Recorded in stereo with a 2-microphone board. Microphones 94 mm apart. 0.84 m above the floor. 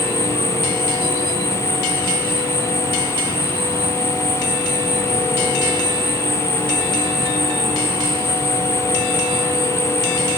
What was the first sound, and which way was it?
An insect, 75° right (ahead or behind).